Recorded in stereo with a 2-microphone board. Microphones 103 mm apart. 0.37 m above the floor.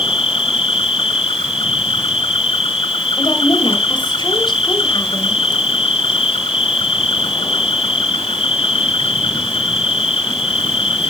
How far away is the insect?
About 1.0 m.